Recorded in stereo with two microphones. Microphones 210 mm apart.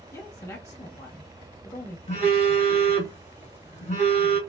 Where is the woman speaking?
15° left (ahead or behind), 0.8 m.